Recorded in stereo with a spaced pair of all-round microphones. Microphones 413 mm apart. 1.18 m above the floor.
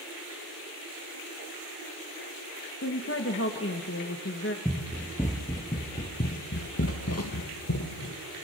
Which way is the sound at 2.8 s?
30° left (ahead or behind).